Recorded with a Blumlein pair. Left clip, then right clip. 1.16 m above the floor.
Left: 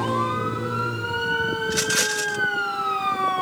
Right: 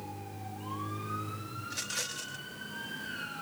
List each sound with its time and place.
1.6 s a rattle: 60° left